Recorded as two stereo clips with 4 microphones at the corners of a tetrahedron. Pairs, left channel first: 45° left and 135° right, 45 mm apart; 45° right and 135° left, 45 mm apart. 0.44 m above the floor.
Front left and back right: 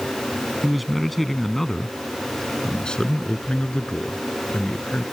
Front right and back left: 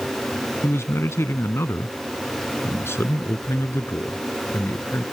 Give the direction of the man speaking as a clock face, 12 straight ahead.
2 o'clock.